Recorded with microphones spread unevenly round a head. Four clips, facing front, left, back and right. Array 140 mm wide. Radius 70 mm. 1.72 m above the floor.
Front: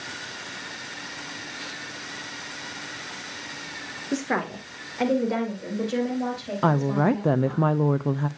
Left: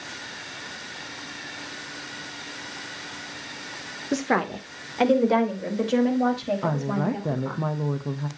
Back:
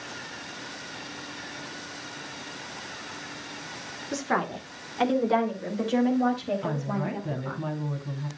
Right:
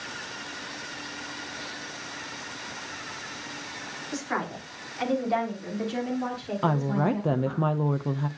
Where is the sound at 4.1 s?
70° left, 2.5 m; by 7.6 s 110° left, 5.5 m.